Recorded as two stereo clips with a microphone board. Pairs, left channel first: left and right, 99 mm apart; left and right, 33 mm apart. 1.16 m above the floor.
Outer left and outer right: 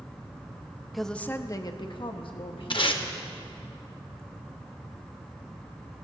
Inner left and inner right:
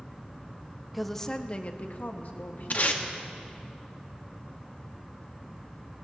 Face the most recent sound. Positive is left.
turn(degrees=60)  # may be behind; listen again after turning